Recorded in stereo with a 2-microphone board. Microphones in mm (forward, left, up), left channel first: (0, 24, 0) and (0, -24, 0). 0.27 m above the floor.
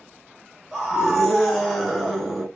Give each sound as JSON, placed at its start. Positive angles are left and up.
{"t": 0.7, "sound": "a scream", "side_deg": 0, "distance_m": 1.7}